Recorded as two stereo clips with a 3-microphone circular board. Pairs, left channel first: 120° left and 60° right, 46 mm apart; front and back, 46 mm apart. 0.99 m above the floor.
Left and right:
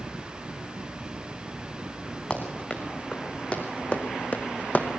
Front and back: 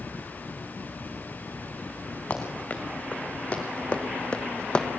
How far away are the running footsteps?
About 4 m.